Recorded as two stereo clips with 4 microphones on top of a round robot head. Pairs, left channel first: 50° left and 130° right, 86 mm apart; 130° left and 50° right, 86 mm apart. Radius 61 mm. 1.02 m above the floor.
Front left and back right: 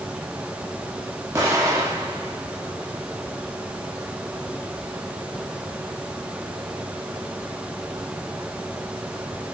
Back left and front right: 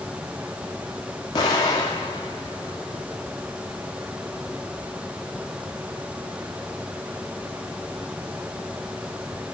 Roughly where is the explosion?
Behind.